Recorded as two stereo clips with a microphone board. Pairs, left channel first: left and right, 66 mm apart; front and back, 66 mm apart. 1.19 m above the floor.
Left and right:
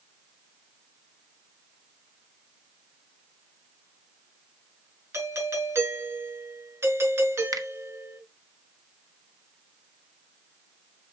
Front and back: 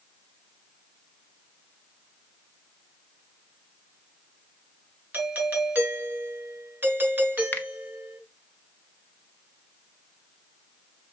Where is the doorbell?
125° right, 1.9 m.